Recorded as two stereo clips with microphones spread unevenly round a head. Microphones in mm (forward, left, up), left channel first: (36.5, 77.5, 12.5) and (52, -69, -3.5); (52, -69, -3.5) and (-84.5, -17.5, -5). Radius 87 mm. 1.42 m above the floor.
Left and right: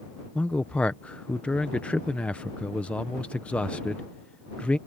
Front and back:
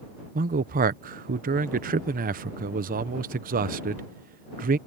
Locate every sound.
0.3 s a man speaking: straight behind